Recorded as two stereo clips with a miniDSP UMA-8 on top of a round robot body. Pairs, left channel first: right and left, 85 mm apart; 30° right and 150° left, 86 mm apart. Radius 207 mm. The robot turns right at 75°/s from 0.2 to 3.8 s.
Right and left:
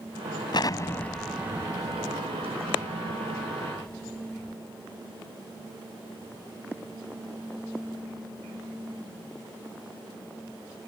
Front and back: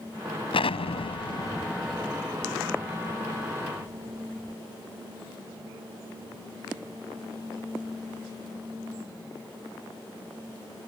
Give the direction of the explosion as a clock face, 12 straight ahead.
2 o'clock.